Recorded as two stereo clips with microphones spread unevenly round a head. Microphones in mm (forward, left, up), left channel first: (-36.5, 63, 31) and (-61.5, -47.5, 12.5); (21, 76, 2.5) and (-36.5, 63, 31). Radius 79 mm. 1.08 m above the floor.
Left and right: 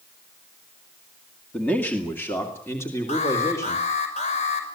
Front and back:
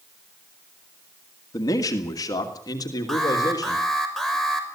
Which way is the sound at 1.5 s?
5° right.